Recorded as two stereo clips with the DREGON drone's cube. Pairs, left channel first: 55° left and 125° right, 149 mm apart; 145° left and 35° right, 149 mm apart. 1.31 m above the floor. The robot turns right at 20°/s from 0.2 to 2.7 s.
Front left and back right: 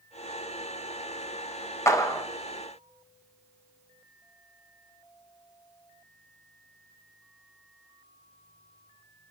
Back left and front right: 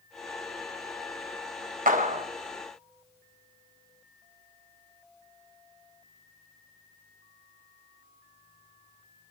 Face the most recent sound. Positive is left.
turn(degrees=5)